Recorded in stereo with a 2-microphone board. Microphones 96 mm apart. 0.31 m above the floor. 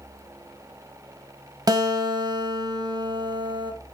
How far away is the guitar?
About 1.0 m.